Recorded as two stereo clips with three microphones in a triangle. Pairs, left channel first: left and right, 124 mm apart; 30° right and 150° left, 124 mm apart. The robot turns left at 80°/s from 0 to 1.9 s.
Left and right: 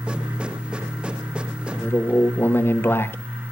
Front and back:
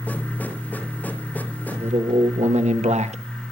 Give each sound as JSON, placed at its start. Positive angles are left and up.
{"t": 1.7, "sound": "a man speaking", "azimuth_deg": 175, "distance_m": 1.1}